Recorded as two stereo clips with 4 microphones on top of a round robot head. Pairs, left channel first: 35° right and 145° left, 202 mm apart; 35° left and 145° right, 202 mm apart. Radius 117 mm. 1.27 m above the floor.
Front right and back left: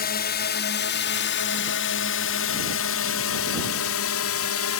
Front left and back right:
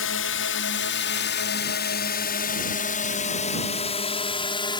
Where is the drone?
10° left; by 4.8 s 35° right.